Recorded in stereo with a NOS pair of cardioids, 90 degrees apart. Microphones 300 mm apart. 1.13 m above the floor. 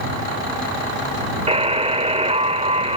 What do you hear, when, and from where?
1.5 s a buzzer: 20° right